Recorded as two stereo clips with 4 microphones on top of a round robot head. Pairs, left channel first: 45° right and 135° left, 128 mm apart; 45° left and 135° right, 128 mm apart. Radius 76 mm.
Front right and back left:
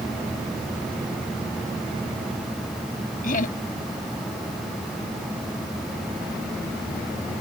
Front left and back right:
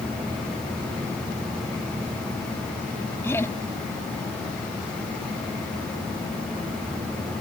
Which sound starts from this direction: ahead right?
Laughter, at 3.2 s.